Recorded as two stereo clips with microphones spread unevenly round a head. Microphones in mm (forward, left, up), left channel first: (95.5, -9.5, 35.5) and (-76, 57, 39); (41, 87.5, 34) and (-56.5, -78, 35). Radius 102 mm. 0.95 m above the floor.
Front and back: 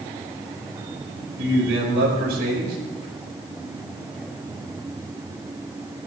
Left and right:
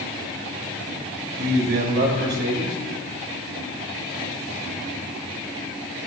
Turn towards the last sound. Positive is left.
turn(degrees=-155)